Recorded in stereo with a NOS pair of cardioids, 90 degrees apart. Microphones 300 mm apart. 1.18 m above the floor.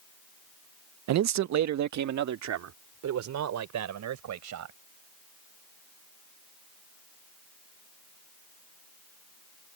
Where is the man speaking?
60° right; by 4.8 s 65° right.